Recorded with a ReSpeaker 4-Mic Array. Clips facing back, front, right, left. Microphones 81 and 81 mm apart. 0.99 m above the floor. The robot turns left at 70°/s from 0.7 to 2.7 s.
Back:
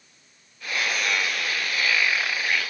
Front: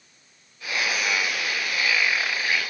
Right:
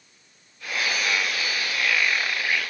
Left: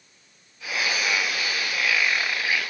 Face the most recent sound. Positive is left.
No sound to turn to.